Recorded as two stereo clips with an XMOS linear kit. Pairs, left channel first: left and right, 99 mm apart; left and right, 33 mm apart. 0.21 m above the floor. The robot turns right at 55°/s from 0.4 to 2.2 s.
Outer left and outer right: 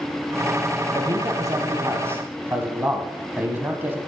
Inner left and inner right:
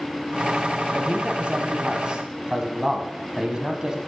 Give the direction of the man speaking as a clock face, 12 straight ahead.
4 o'clock.